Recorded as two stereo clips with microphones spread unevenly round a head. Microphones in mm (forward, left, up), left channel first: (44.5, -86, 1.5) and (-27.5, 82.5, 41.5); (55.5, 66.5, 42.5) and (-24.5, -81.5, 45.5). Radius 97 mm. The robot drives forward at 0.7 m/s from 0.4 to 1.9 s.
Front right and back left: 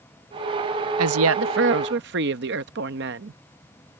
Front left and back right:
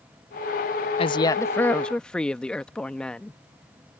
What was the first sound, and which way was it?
A woman speaking, 120° left.